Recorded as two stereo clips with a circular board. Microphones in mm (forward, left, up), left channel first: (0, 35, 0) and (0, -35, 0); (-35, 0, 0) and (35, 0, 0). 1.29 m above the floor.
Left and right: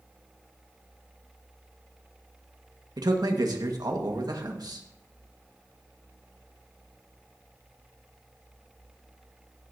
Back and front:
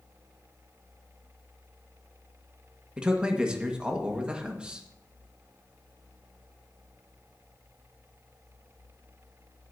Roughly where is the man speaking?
Right.